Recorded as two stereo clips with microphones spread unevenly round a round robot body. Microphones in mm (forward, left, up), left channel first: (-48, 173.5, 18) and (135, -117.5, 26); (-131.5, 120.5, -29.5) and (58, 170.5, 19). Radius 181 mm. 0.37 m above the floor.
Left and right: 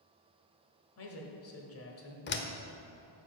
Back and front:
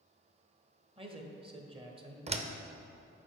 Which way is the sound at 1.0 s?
85° left.